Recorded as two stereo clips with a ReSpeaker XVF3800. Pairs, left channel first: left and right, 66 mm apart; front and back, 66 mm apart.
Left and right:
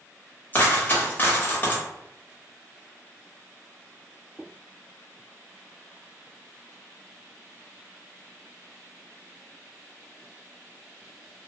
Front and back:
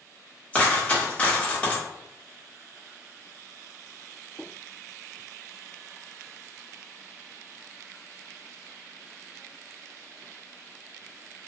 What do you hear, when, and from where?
0.5 s a dropped coin: 50° left, 0.9 m